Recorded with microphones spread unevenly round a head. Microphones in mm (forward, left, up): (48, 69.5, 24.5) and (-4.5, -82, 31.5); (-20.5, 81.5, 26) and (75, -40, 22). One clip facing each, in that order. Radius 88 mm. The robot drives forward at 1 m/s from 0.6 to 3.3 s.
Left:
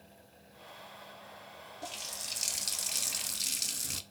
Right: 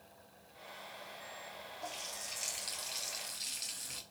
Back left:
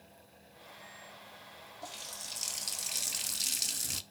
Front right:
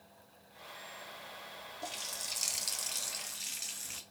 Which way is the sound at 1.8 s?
15° left.